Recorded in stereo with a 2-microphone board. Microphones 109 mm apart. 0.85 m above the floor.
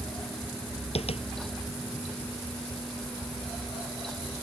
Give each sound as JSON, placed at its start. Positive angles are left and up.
{"t": 0.9, "sound": "tapping", "side_deg": 65}